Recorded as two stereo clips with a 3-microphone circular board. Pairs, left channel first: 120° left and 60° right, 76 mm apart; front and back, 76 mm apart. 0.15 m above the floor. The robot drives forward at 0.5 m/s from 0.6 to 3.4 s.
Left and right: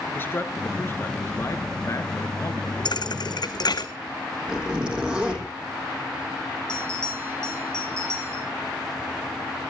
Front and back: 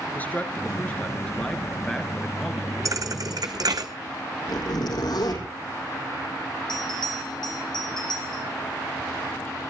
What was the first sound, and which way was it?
A man speaking, 65° left.